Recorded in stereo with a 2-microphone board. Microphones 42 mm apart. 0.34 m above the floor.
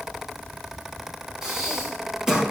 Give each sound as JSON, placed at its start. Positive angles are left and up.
{"t": 1.4, "sound": "breathing", "side_deg": -10, "distance_m": 3.5}